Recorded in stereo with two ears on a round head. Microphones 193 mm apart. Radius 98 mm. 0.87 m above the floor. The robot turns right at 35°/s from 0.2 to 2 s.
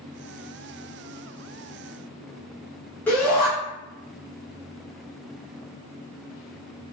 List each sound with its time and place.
3.1 s a shout: 5° left (ahead or behind), 1.0 m